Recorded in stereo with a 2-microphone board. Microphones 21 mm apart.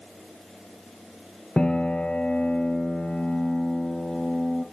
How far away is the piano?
About 1.2 m.